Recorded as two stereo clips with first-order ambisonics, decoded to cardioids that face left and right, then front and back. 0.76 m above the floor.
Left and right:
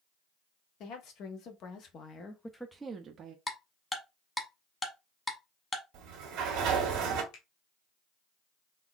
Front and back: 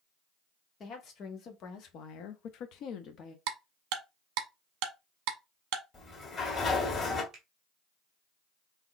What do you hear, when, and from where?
0.8 s a woman speaking: 55° left, 1.4 m; by 3.4 s 50° right, 0.7 m
3.5 s ticking: 170° left, 1.0 m
5.9 s a sliding door: 60° right, 1.6 m
7.3 s a finger snap: 120° left, 1.9 m